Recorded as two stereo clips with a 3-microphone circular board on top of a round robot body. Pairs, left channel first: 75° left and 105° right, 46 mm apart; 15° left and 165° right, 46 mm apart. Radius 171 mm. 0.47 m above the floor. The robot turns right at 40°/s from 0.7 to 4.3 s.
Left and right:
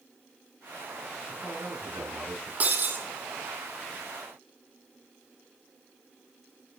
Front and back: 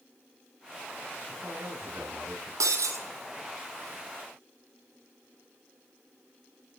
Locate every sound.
1.3 s a man speaking: 150° right, 10 m; by 2.5 s 105° right, 10 m
2.6 s breaking glass: 165° right, 1.4 m; by 3.0 s 145° right, 1.4 m